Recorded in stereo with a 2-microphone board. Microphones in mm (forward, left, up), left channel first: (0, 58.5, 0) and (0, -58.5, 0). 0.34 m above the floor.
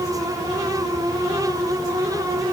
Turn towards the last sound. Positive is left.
No sound to turn to.